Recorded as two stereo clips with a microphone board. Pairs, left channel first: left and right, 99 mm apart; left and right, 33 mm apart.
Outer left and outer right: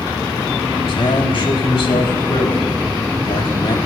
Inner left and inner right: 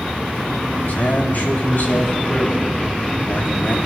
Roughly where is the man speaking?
Left.